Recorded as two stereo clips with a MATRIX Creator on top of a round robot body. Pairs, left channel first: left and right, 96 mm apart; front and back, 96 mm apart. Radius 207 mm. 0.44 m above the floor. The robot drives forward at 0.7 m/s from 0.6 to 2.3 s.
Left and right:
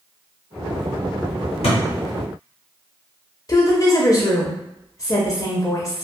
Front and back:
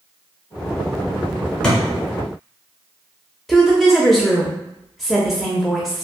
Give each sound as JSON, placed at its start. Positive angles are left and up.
{"t": 1.6, "sound": "a thud", "azimuth_deg": 80, "distance_m": 0.8}
{"t": 3.5, "sound": "a woman speaking", "azimuth_deg": 90, "distance_m": 0.8}